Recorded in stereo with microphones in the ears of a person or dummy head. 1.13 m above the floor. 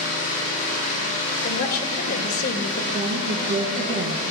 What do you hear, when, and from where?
0.0 s an engine running: 45° left (ahead or behind), 6 m
1.4 s a woman speaking: 55° left (ahead or behind), 1.6 m
2.9 s a woman speaking: 40° right (ahead or behind), 1.0 m